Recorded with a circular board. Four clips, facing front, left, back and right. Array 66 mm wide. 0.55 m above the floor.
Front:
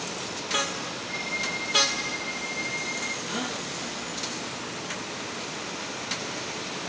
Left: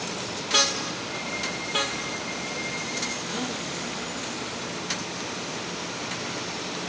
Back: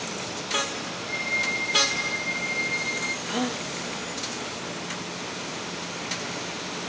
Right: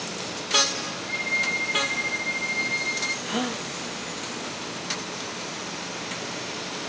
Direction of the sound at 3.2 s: 130° right.